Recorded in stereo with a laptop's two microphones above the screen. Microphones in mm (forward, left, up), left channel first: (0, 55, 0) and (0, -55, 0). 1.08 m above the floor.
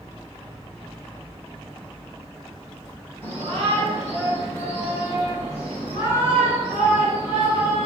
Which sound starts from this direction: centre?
A shout, at 3.2 s.